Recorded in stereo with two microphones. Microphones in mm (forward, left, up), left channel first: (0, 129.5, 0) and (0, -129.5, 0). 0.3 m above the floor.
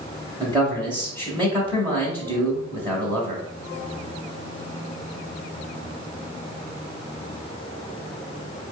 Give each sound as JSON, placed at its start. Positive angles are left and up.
{"t": 0.4, "sound": "a man speaking", "side_deg": -20, "distance_m": 1.3}